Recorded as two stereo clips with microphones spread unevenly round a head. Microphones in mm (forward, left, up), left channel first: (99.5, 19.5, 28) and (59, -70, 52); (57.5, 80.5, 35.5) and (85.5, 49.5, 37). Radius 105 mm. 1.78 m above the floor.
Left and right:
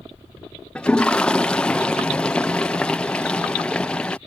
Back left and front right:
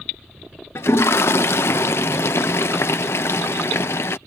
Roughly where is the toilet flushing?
Behind.